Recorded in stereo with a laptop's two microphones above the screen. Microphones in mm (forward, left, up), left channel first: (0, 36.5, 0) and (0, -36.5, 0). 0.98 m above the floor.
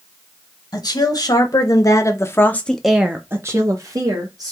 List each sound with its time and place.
0.7 s a woman speaking: 70° left (ahead or behind), 1.5 m; by 4.5 s 65° right (ahead or behind), 1.2 m